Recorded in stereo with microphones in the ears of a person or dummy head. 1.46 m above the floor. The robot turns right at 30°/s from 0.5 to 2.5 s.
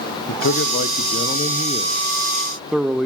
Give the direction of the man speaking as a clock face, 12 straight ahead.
8 o'clock.